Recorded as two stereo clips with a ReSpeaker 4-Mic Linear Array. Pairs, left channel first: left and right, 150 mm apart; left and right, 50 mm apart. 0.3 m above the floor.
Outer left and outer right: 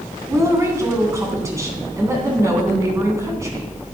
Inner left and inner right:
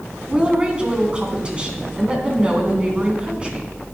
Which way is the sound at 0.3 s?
20° right (ahead or behind).